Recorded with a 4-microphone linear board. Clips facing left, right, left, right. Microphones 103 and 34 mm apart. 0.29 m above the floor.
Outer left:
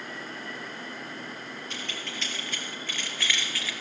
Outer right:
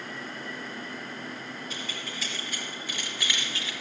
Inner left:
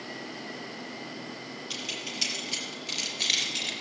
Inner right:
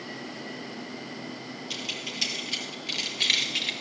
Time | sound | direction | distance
1.7 | keys jangling | 5° right (ahead or behind) | 5 m